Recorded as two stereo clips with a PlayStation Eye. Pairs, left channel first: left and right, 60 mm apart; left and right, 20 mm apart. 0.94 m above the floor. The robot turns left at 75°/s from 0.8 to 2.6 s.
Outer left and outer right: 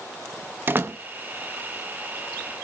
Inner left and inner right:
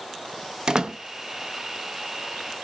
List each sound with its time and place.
0.7 s a door slam: 35° right (ahead or behind), 0.7 m; by 1.0 s 50° right (ahead or behind), 0.7 m